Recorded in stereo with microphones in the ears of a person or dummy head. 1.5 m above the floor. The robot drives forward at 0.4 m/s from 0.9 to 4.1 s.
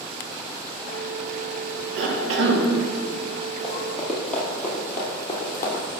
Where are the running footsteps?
Centre (ahead or behind), 3 m; by 5.8 s 25° left (ahead or behind), 2.5 m.